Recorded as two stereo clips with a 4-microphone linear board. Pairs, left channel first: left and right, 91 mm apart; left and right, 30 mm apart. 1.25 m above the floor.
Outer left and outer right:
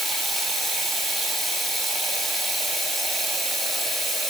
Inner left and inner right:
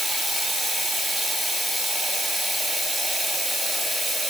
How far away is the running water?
About 0.9 m.